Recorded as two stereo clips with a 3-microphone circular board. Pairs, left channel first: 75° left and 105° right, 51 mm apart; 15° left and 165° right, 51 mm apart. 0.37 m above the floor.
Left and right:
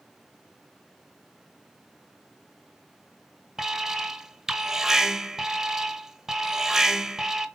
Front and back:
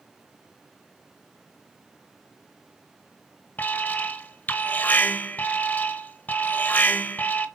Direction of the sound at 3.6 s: 30° right.